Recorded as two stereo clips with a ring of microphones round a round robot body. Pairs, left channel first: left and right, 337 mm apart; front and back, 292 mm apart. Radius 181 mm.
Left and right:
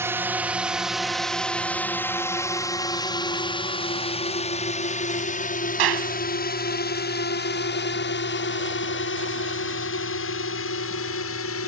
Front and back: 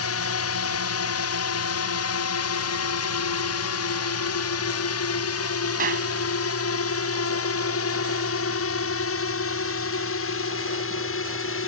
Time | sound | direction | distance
0.0 | a drone | 10° right | ?
5.8 | a clap | 115° right | ?